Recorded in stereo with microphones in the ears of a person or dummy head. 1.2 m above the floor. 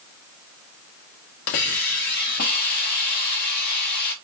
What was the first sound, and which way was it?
A hiss, 55° left (ahead or behind).